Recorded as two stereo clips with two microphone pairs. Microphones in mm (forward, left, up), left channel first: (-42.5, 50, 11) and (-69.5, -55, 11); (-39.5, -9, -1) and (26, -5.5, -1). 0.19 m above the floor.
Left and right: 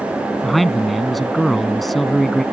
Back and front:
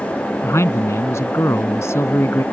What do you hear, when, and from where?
0.4 s a man speaking: 165° left